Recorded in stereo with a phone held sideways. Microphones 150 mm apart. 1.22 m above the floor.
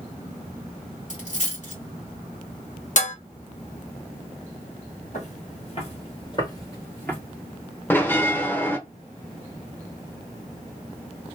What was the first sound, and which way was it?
A dropped coin, 50° left (ahead or behind).